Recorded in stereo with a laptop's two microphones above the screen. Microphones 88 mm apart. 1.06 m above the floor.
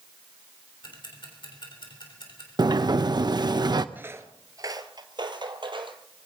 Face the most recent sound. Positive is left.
turn(degrees=-65)  # may be behind; listen again after turning